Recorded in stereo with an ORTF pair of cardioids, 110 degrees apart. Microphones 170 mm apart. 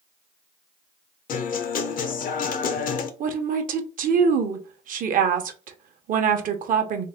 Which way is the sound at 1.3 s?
55° left.